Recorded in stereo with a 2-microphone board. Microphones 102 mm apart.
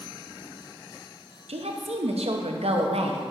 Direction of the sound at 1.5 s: 85° right.